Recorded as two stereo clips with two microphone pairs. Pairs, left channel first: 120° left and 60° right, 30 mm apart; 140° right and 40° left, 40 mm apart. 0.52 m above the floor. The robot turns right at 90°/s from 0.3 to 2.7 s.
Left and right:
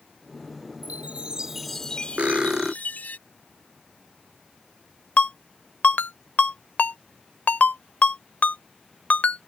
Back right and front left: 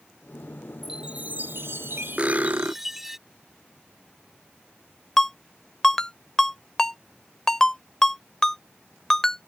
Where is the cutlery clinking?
25° right; by 2.7 s 20° left.